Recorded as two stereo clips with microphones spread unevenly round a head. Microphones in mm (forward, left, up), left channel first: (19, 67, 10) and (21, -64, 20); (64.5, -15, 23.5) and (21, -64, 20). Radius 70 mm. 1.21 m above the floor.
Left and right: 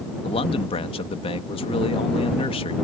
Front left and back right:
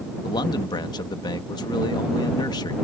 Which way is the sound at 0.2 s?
40° left.